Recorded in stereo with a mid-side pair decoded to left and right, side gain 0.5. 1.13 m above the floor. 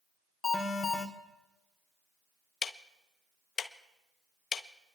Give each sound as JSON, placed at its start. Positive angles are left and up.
{"t": 0.4, "sound": "an alarm", "azimuth_deg": 30, "distance_m": 2.5}
{"t": 2.6, "sound": "ticking", "azimuth_deg": 40, "distance_m": 0.8}